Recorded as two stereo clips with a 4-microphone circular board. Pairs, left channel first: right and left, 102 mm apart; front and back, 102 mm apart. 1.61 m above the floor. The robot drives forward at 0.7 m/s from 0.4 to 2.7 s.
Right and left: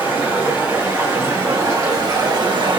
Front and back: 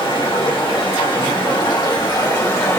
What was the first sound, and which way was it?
Running water, 25° left.